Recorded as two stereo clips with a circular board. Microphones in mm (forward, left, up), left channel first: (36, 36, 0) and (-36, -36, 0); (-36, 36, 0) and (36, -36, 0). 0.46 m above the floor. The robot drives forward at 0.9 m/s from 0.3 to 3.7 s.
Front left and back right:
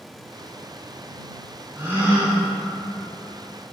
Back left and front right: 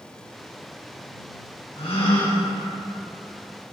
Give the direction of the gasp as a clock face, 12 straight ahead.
7 o'clock.